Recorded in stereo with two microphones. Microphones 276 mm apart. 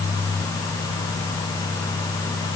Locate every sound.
Only background noise.